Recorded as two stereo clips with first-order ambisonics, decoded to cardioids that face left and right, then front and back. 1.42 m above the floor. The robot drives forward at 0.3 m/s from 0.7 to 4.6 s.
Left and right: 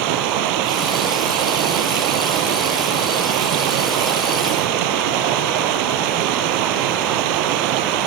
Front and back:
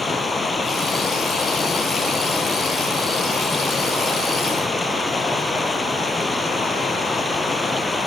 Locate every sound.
0.0 s running water: 75° right; by 8.1 s 80° right